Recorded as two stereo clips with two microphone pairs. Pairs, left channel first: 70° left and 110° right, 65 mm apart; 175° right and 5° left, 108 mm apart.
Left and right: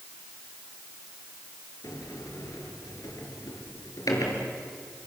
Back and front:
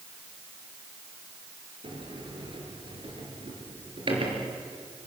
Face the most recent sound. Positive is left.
turn(degrees=45)